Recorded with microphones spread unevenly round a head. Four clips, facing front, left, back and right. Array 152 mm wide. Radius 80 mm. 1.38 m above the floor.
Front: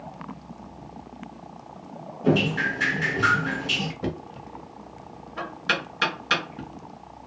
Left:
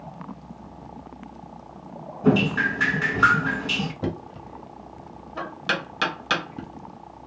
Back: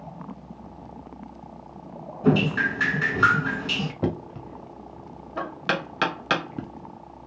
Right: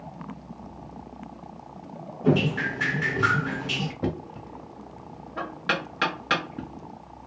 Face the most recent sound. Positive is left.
turn(degrees=-170)